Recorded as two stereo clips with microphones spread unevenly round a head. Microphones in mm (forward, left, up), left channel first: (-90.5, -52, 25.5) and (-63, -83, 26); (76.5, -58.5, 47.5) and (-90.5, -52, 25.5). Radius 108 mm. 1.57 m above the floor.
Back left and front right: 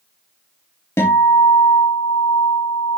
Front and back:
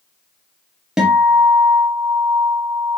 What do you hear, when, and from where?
1.0 s a guitar: 90° left, 1.5 m